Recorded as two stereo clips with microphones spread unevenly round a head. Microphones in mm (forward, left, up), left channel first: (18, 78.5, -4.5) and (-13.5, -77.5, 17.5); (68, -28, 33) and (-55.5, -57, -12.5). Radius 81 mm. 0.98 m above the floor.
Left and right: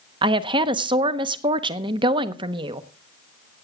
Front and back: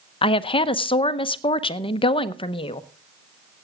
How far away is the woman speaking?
About 0.7 m.